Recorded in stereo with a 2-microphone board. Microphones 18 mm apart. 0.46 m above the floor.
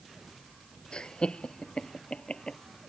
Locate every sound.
0.9 s laughter: 70° left (ahead or behind); by 2.6 s 60° left (ahead or behind)